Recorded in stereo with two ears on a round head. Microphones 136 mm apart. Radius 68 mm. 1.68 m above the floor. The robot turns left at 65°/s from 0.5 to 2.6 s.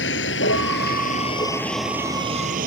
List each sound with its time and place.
0.0 s a vehicle: 90° left; by 2.7 s 55° right (ahead or behind)